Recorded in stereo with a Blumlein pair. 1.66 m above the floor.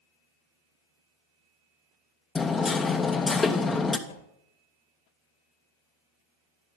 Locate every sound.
2.4 s hammering: 15° left, 1.0 m
4.1 s a whoosh: 65° left, 2.5 m